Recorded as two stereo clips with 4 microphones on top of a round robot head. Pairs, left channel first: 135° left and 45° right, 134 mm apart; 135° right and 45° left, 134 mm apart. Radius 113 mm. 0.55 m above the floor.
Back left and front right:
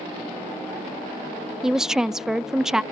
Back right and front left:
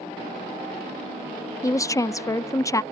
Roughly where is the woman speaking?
Behind right.